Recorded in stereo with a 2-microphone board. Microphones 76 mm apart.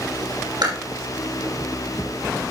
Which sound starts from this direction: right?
Chewing, at 0.6 s.